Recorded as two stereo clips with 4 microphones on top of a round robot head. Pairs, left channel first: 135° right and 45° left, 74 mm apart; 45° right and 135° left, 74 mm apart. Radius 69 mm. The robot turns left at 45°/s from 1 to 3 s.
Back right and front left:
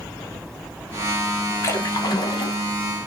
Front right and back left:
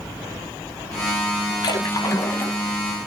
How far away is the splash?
About 0.8 m.